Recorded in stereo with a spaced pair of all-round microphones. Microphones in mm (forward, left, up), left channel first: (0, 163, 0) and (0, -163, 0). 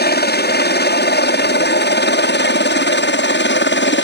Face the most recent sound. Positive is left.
turn(degrees=35)  # may be behind; listen again after turning